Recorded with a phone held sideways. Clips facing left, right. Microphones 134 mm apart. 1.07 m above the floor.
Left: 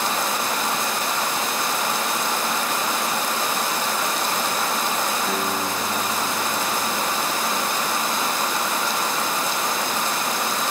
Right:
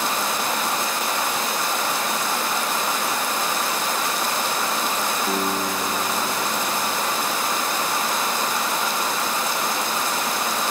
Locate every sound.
5.3 s a guitar: 25° right (ahead or behind), 6.5 m